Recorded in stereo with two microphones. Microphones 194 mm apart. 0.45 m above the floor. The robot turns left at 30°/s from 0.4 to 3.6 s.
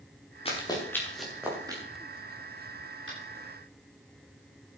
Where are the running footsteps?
30° left (ahead or behind), 5.5 m; by 1.8 s 20° right (ahead or behind), 6.5 m.